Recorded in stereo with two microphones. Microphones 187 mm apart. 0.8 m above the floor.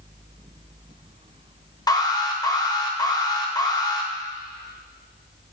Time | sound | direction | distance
1.9 | an alarm | 20° left (ahead or behind) | 1.0 m